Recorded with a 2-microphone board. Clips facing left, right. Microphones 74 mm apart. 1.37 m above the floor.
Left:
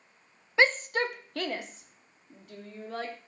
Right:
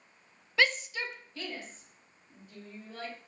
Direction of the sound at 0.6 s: 25° left (ahead or behind).